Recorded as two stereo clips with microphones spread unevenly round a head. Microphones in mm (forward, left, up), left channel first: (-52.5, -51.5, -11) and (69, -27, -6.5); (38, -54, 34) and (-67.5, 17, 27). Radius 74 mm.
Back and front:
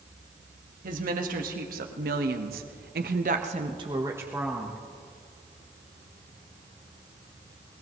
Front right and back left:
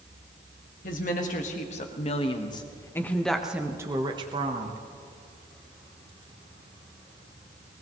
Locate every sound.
0.8 s a woman speaking: straight ahead, 2.0 m; by 4.8 s 100° left, 1.3 m